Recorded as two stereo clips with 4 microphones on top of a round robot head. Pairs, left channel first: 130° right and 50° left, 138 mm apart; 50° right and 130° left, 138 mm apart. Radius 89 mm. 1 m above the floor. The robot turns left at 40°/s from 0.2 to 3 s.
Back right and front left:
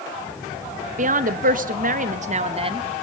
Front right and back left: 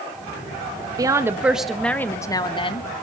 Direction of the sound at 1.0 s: 70° left.